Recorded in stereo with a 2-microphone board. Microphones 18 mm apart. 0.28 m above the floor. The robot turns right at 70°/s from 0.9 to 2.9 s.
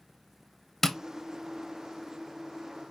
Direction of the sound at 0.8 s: 15° left (ahead or behind).